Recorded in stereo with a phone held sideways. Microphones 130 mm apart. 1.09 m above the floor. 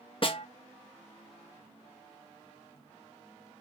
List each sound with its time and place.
0.2 s a snare drum: 45° left (ahead or behind), 0.8 m